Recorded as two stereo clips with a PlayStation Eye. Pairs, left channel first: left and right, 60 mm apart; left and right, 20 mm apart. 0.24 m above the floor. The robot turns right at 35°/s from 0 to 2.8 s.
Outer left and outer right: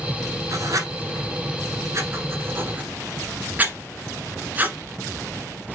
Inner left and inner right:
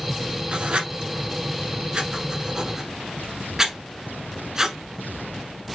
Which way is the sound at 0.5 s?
65° right (ahead or behind).